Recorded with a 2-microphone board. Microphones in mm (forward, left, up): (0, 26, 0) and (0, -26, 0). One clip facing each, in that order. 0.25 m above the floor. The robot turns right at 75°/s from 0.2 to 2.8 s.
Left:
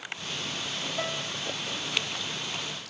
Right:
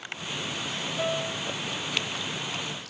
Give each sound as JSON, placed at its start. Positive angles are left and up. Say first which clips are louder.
{"t": 1.0, "sound": "a piano", "louder": "right 6 dB", "azimuth_deg": 60, "distance_m": 0.9}